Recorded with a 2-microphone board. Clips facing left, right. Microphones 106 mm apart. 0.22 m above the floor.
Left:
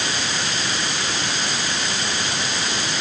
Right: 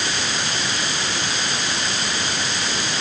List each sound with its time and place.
Only background noise.